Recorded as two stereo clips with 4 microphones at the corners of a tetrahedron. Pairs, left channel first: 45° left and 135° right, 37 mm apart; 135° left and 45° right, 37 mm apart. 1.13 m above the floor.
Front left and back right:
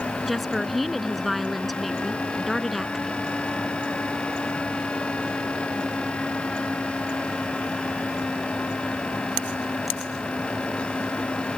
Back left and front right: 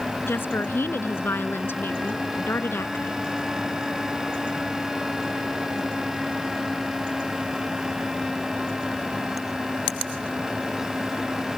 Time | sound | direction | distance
0.3 | a woman speaking | 135° left | ?